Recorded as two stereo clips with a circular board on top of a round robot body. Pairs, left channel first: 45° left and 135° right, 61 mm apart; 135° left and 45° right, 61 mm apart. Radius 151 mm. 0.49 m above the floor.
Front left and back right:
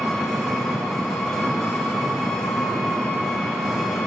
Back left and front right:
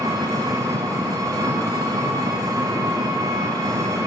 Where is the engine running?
35° right, 1.2 m.